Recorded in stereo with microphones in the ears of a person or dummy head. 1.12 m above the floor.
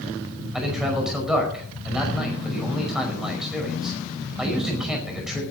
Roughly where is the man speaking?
Centre.